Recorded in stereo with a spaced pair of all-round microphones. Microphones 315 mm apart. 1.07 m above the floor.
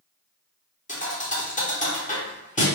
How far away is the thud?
About 0.8 m.